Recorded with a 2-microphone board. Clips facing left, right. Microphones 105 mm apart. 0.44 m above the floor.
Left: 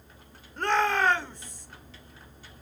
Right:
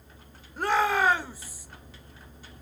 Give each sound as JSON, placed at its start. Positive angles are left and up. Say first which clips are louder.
{"t": 0.6, "sound": "a shout", "louder": "right 1 dB", "side_deg": -5, "distance_m": 1.4}